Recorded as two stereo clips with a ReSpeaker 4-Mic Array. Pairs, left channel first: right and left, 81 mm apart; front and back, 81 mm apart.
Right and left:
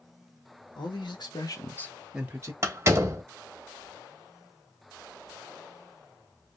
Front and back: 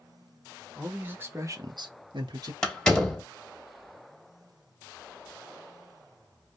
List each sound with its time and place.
0.8 s a man speaking: 105° right, 1.5 m; by 2.5 s 145° left, 0.9 m
2.6 s a door slam: 75° left, 1.0 m